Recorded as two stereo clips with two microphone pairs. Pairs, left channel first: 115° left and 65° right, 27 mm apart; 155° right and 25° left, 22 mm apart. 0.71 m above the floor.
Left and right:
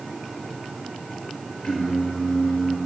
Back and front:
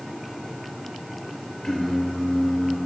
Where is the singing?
145° left, 1.9 m.